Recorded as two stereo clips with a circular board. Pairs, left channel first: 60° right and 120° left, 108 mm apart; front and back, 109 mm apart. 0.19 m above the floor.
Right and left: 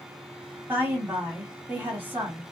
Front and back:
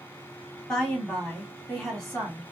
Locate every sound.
0.7 s a woman speaking: 85° left, 1.6 m